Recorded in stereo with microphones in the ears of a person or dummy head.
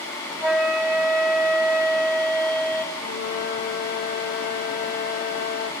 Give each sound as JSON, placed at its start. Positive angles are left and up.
{"t": 0.4, "sound": "a flute", "side_deg": 0, "distance_m": 4.0}
{"t": 3.0, "sound": "a flute", "side_deg": 55, "distance_m": 3.0}